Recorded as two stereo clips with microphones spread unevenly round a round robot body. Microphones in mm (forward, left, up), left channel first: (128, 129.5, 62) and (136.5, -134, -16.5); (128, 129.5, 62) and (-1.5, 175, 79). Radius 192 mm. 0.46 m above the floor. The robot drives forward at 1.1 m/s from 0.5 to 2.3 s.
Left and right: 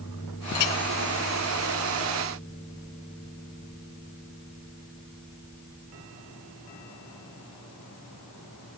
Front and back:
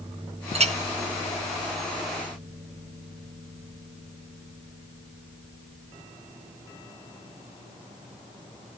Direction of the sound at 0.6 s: 115° left.